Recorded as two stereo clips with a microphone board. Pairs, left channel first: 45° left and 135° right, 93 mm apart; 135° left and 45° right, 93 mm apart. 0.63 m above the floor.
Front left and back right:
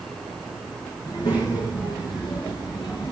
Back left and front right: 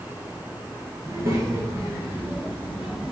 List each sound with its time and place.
1.0 s a child speaking: 5° left, 5.5 m; by 3.1 s 35° left, 4.5 m